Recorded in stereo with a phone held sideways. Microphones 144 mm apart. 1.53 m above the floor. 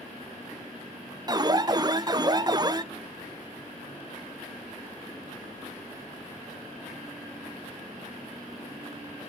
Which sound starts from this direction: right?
An alarm, at 1.3 s.